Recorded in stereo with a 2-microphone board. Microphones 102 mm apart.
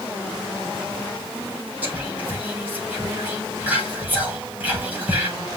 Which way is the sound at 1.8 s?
15° right (ahead or behind).